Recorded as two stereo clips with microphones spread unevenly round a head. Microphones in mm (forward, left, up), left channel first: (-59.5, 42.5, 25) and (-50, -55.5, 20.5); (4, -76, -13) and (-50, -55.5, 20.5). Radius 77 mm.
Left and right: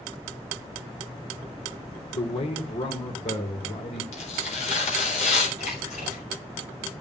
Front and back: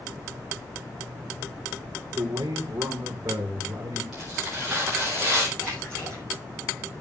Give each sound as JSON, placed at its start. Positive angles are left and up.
{"t": 2.1, "sound": "a man speaking", "azimuth_deg": 115, "distance_m": 1.7}
{"t": 4.1, "sound": "tearing paper", "azimuth_deg": 80, "distance_m": 4.5}
{"t": 5.6, "sound": "a splash", "azimuth_deg": 65, "distance_m": 6.5}